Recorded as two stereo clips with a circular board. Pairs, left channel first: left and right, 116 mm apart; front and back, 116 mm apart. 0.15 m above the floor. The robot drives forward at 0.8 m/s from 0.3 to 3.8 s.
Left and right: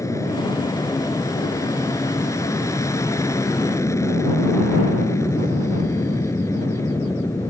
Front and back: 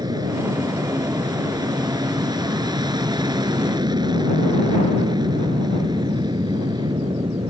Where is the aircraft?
140° left; by 7.5 s 145° left.